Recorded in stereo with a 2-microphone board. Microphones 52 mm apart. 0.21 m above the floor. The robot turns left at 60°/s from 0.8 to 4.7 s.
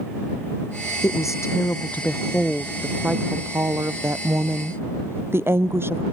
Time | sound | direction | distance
1.0 | a woman speaking | 90° left | ?